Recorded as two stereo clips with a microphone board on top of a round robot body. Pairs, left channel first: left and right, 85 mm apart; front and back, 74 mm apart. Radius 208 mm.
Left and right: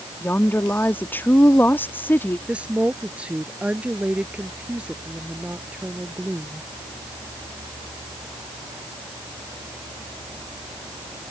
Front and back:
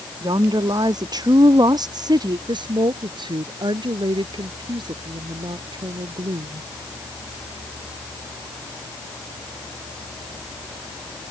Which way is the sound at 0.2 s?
155° left.